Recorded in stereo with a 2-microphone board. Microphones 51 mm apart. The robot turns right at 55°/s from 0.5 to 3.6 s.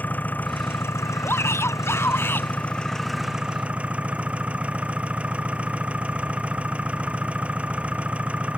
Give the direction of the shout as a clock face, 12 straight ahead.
10 o'clock.